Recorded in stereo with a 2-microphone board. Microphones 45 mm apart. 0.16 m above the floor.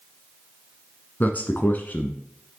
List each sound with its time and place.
1.2 s a man speaking: 40° left (ahead or behind), 1.4 m